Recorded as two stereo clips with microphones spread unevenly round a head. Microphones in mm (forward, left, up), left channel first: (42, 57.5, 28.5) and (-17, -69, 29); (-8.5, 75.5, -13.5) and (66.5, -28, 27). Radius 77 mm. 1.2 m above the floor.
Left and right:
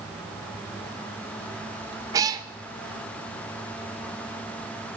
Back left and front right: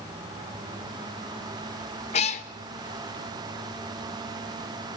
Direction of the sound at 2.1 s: Straight behind.